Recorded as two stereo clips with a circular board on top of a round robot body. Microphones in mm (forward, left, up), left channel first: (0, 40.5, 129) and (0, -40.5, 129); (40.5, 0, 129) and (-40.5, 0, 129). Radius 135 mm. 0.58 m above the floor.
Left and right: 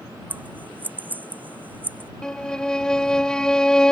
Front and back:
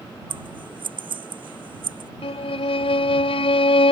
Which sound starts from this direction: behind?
Scissors, at 0.3 s.